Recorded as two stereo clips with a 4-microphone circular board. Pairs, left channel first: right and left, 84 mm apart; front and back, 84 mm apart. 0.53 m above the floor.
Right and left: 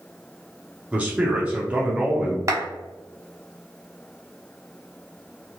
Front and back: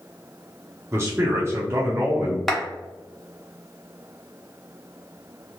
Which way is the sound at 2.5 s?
85° left.